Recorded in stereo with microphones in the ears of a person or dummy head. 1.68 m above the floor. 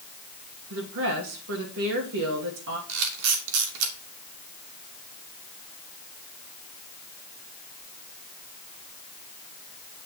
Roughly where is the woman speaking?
Right.